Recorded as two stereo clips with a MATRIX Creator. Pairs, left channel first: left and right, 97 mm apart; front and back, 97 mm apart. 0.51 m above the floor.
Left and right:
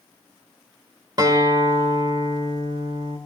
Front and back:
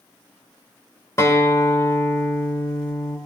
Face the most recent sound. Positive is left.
turn(degrees=-55)